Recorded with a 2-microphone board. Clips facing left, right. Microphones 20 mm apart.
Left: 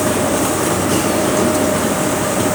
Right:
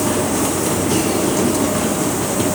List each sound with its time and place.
Only background noise.